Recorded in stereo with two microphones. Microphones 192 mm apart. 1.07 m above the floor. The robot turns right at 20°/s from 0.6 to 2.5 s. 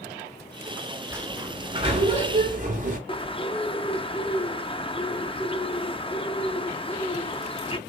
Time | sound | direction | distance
1.1 | a sliding door | 15° right (ahead or behind) | 2.5 m
3.1 | a bird | 30° left (ahead or behind) | 0.7 m